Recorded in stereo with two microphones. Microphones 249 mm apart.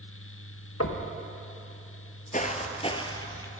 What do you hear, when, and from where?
0.8 s knocking: 65° left (ahead or behind), 1.2 m
2.3 s footsteps: 30° left (ahead or behind), 1.1 m; by 3.5 s 10° left (ahead or behind), 1.3 m